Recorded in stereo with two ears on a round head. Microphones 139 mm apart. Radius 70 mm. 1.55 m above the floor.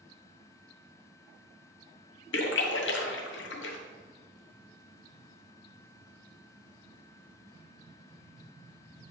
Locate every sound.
2.3 s a splash: 85° left, 0.8 m